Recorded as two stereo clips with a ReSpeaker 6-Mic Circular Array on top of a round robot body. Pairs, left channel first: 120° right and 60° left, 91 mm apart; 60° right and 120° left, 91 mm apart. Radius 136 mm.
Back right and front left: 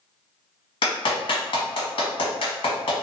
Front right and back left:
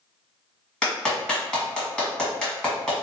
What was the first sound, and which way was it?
A clap, 145° right.